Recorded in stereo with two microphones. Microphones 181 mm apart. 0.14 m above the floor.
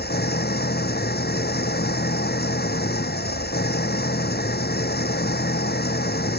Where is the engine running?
60° left (ahead or behind).